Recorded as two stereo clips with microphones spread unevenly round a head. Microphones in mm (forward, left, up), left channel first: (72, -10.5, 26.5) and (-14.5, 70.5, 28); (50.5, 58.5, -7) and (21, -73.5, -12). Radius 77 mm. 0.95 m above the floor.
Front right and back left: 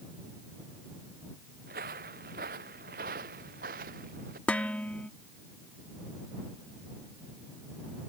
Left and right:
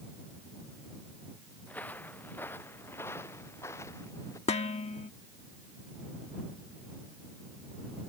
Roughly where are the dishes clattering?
Ahead left.